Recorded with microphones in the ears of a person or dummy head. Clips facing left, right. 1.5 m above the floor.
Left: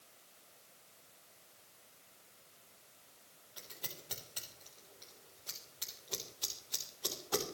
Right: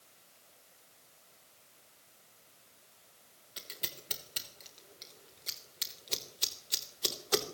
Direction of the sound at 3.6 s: 30° right (ahead or behind).